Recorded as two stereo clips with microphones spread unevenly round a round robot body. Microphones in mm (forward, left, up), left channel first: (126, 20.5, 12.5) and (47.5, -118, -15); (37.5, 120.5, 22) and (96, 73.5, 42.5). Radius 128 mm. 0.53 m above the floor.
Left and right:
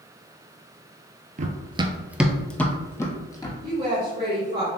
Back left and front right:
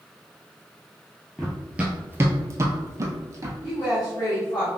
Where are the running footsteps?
115° right, 0.6 m; by 3.5 s straight ahead, 1.4 m.